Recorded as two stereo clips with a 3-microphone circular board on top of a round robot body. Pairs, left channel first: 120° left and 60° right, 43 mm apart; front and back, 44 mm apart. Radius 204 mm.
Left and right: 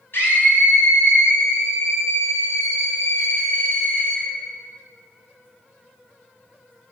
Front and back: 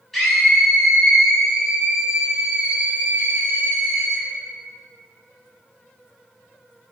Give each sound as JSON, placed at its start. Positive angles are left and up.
{"t": 0.1, "sound": "a scream", "azimuth_deg": 85, "distance_m": 5.0}